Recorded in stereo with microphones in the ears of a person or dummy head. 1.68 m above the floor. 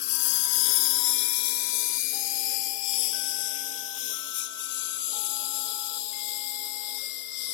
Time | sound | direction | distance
0.0 | a lawn mower | 70° left (ahead or behind) | ?